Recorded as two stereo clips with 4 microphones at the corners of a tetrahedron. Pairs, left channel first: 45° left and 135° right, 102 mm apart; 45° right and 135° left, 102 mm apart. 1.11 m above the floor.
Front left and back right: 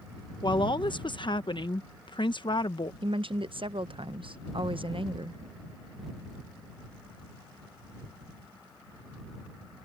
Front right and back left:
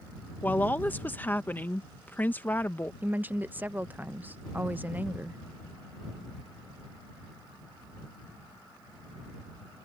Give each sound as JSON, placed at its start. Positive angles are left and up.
{"t": 0.4, "sound": "a woman speaking", "azimuth_deg": 25}
{"t": 3.0, "sound": "a woman speaking", "azimuth_deg": -155}